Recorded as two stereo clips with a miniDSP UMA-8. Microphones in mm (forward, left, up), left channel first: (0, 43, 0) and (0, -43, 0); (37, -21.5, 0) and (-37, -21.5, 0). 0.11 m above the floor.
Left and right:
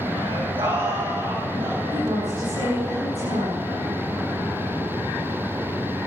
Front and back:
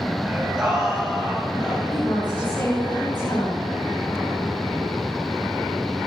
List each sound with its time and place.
0.2 s singing: 100° right, 7 m
1.9 s a woman speaking: 60° right, 9.5 m